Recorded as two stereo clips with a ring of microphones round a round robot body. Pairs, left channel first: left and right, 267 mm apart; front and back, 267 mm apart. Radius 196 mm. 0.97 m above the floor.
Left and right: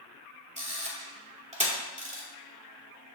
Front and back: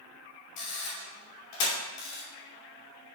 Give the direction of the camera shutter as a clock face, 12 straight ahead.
1 o'clock.